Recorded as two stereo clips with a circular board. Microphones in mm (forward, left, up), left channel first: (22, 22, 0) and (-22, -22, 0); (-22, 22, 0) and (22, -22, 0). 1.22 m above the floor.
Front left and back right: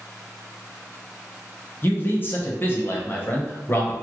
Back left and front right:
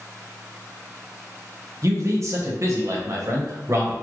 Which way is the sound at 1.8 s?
10° right.